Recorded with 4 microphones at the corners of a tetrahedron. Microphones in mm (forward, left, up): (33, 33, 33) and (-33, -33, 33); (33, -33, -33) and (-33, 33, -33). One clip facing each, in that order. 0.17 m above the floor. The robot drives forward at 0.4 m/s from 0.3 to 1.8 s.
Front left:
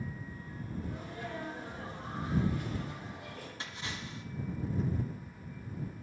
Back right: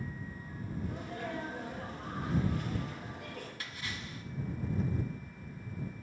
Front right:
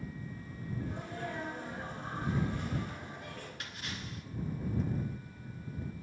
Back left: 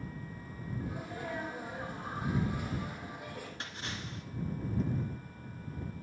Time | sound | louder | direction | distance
0.8 | a sneeze | back right 2 dB, back left 2 dB | 140° right | 5 m
3.6 | a splash | front left 1 dB, back left 2 dB | 95° left | 1.6 m